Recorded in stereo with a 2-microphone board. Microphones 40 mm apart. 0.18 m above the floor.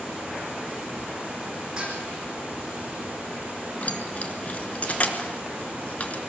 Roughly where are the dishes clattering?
Right.